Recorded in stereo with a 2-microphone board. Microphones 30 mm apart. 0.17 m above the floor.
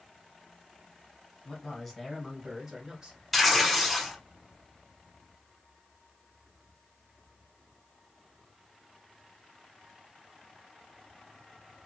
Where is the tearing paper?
Centre (ahead or behind), 0.8 m.